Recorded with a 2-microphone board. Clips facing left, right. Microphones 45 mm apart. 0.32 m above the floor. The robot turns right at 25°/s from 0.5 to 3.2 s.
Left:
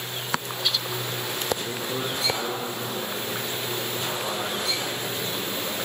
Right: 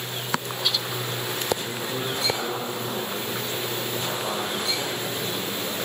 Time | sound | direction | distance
1.6 | a man speaking | 35° left (ahead or behind) | 7.5 m